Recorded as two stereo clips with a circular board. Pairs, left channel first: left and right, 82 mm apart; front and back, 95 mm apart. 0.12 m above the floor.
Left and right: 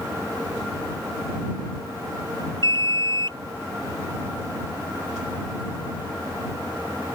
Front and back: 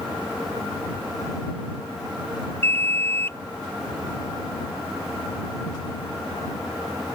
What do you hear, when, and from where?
2.6 s an alarm: 65° right